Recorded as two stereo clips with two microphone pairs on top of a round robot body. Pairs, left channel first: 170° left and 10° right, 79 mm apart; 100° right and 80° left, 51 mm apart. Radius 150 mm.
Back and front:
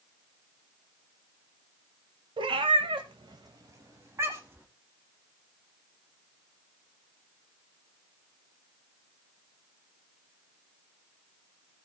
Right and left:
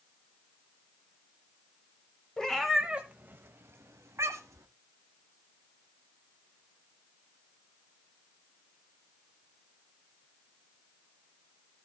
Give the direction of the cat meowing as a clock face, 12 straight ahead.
1 o'clock.